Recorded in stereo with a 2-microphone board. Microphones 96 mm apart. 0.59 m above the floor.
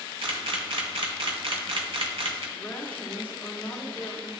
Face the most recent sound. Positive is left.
turn(degrees=15)  # may be behind; listen again after turning